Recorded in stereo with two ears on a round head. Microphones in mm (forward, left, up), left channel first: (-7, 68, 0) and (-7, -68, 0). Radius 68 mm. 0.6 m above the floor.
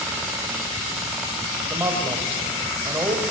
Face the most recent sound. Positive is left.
turn(degrees=-15)  # may be behind; listen again after turning